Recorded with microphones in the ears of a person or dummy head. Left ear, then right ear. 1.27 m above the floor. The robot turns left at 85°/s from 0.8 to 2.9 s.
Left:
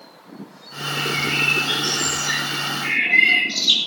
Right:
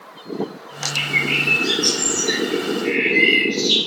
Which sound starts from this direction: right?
A bird, at 0.9 s.